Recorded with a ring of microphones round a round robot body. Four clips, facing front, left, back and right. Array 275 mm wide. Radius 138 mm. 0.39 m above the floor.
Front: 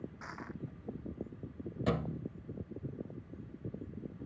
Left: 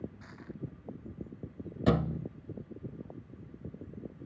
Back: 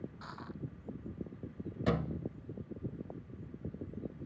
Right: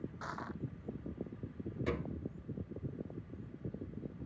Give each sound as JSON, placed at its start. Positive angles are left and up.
{"t": 0.2, "sound": "crushing", "azimuth_deg": -80}
{"t": 1.9, "sound": "a thud", "azimuth_deg": 90}